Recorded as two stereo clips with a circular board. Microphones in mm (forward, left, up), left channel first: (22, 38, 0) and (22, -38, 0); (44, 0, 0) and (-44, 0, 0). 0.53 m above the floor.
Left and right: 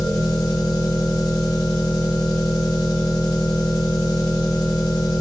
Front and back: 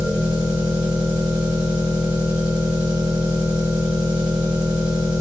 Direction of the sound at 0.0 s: 105° left.